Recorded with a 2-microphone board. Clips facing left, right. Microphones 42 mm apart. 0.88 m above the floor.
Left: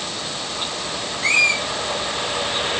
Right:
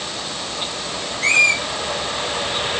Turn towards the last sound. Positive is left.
turn(degrees=-55)  # may be behind; listen again after turning